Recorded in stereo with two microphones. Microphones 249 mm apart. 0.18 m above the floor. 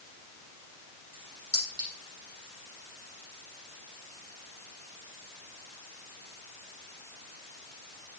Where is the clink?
40° right (ahead or behind), 4.5 m.